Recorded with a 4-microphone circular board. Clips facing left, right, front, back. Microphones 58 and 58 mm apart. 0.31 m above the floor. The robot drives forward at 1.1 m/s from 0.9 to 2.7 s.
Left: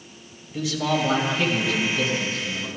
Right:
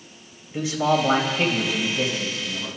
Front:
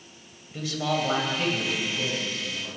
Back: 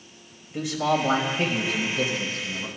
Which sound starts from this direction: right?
A man speaking, at 0.5 s.